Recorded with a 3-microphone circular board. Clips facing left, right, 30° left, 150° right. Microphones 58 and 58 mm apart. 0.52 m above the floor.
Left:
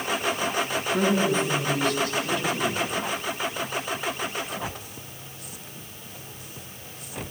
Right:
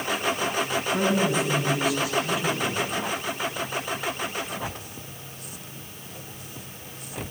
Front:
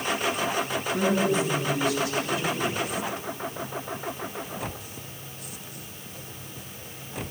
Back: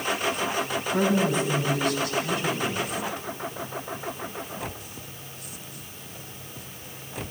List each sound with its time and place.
0.9 s a woman speaking: 170° right, 5.5 m